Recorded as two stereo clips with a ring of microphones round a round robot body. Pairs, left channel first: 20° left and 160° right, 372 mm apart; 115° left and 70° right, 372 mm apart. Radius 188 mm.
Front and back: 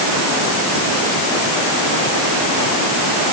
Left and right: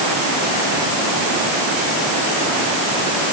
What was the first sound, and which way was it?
Only background noise.